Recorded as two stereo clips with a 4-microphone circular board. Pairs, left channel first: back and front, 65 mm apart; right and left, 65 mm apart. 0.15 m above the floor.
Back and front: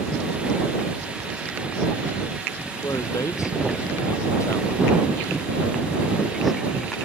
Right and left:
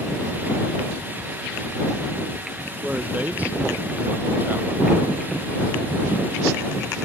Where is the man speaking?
155° left; by 4.9 s 145° left.